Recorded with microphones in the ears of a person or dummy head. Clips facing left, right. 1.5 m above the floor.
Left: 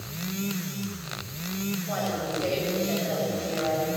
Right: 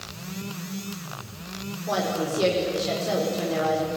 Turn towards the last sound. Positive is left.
turn(degrees=-85)